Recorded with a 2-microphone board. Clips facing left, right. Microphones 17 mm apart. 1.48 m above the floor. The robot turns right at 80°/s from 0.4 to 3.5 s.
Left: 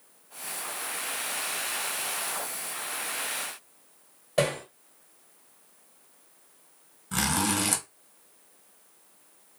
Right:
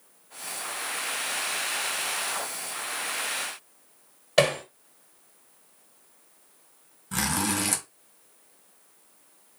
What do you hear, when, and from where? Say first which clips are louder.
4.4 s hammering: right 4 dB; 40° right (ahead or behind), 1.5 m
7.1 s a zipper: even; 10° left (ahead or behind), 1.4 m